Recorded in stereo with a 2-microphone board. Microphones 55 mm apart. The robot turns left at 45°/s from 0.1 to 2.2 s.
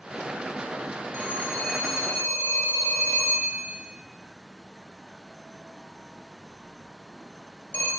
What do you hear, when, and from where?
1.1 s a phone ringing: 20° left (ahead or behind), 1.3 m; by 7.9 s 50° left (ahead or behind), 1.3 m